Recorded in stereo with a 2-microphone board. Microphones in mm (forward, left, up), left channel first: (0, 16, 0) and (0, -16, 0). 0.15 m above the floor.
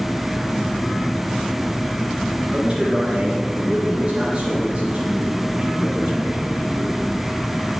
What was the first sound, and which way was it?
A man speaking, 25° right (ahead or behind).